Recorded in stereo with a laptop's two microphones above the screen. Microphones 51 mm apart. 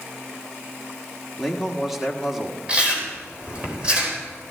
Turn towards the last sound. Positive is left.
turn(degrees=-25)  # may be behind; listen again after turning